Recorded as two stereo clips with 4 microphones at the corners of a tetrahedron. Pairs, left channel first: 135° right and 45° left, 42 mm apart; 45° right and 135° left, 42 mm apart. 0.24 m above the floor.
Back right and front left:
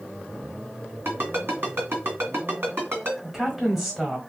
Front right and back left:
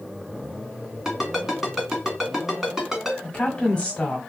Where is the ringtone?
55° left, 1.9 m.